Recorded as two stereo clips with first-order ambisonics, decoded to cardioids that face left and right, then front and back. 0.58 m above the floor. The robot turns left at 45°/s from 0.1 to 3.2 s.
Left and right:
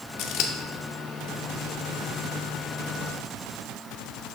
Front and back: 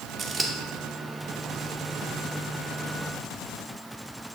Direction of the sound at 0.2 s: 115° left.